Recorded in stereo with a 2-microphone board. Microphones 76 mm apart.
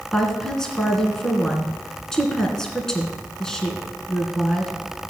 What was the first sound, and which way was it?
A woman speaking, 5° left (ahead or behind).